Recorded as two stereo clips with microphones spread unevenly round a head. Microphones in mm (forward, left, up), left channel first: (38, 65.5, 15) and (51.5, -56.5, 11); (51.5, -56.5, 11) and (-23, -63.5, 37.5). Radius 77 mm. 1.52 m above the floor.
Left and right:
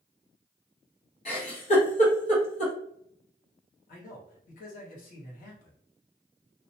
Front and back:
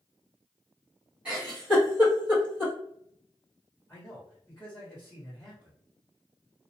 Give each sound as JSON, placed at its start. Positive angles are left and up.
{"t": 1.2, "sound": "a giggle", "azimuth_deg": 120, "distance_m": 1.1}
{"t": 3.9, "sound": "a man speaking", "azimuth_deg": 80, "distance_m": 1.1}